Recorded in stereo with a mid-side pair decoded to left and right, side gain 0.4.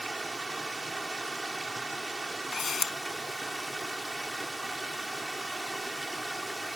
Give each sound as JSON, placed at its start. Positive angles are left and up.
{"t": 0.0, "sound": "running water", "azimuth_deg": -25}
{"t": 2.5, "sound": "a camera shutter", "azimuth_deg": 45}